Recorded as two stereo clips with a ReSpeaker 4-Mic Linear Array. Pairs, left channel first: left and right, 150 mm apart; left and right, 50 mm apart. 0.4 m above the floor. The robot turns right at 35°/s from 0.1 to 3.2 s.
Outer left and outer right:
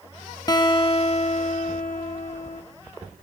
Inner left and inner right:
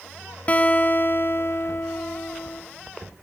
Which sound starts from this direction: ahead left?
A guitar, at 0.5 s.